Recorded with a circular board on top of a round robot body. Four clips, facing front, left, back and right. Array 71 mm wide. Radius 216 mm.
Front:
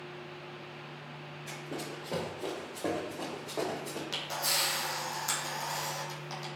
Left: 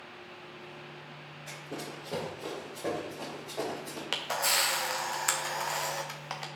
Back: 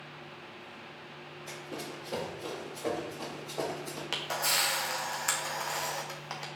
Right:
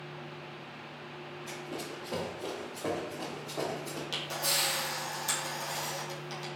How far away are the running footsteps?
About 1.3 m.